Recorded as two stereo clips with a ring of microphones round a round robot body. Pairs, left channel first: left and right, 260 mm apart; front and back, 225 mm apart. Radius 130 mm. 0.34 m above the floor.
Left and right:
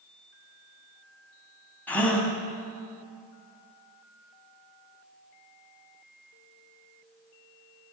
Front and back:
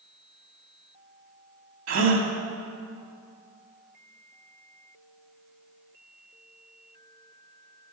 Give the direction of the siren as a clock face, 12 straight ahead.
No siren in this recording.